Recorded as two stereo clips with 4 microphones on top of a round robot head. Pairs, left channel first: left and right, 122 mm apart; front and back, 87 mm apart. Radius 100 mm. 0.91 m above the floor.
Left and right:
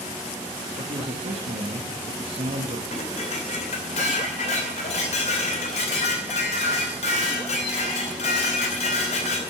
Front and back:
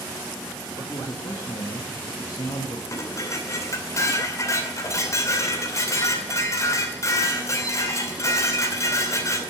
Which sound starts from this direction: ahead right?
A man speaking, at 0.8 s.